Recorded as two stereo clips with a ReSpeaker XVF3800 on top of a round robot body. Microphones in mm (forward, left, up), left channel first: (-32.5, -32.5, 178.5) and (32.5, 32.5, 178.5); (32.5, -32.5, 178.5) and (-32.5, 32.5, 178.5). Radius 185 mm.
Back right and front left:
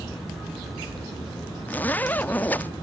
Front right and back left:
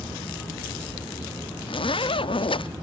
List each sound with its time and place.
1.7 s a zipper: 65° right